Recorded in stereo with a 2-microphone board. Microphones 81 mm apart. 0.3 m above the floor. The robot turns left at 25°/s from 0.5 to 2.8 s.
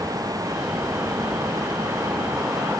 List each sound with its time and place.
Only background noise.